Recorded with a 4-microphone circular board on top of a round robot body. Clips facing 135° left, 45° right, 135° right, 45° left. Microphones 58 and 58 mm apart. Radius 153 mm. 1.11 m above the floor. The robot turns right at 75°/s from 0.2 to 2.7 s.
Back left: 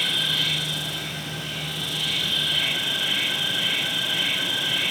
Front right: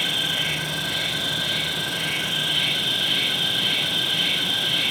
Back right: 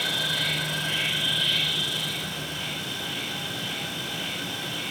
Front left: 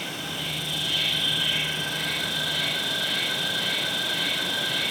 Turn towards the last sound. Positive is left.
turn(degrees=60)